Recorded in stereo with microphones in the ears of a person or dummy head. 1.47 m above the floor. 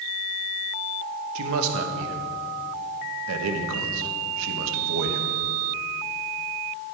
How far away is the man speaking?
About 1.3 m.